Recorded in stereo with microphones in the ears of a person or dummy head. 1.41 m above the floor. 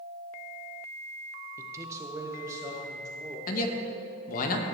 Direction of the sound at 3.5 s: 50° left (ahead or behind).